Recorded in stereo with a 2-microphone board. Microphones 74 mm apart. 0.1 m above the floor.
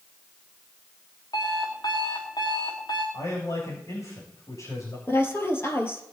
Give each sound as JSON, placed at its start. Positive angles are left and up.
{"t": 1.3, "sound": "an alarm clock", "side_deg": 80, "distance_m": 4.5}
{"t": 3.1, "sound": "a man speaking", "side_deg": 40, "distance_m": 7.0}
{"t": 5.1, "sound": "a woman speaking", "side_deg": 30, "distance_m": 2.5}